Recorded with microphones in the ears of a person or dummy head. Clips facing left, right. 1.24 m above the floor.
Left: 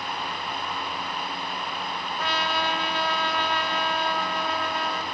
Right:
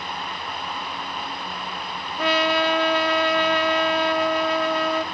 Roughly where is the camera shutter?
I don't hear a camera shutter.